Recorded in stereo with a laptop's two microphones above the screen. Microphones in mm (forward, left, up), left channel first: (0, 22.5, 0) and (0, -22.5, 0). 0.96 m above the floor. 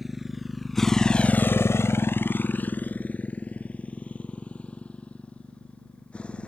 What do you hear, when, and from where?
0.0 s a motorcycle: 5° right (ahead or behind); by 6.5 s 25° left (ahead or behind)